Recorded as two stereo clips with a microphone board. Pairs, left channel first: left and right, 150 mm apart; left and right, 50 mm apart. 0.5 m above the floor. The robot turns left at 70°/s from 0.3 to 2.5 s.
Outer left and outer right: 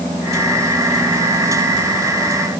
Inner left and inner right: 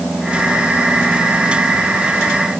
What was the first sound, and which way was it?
Only background noise.